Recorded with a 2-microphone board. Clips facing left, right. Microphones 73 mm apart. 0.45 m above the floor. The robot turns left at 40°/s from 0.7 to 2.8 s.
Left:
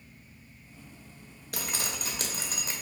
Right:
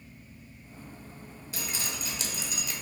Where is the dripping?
85° left, 0.6 m; by 2.7 s 35° left, 0.6 m.